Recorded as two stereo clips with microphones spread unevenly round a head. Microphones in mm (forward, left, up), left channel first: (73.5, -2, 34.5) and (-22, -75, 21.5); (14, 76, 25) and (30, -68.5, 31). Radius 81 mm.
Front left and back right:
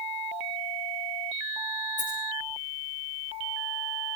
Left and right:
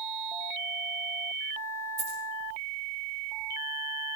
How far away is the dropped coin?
About 9 m.